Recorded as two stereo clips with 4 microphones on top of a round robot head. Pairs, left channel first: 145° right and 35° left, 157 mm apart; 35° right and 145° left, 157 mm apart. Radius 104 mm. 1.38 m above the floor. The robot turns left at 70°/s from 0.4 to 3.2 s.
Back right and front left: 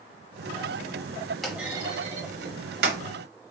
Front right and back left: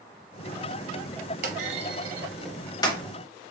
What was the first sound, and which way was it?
A clunk, 125° left.